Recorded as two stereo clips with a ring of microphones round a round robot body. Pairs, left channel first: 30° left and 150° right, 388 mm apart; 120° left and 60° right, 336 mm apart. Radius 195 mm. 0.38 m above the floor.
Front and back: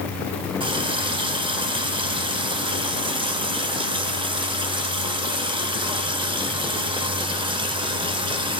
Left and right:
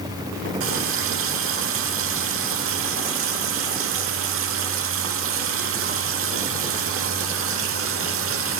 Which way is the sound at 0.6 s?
80° right.